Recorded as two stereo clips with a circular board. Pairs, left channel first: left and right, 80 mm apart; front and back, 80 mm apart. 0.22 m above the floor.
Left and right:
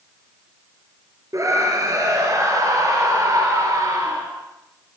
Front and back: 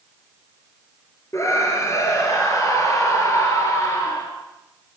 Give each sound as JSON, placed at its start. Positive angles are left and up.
{"t": 1.3, "sound": "a scream", "azimuth_deg": -45, "distance_m": 3.5}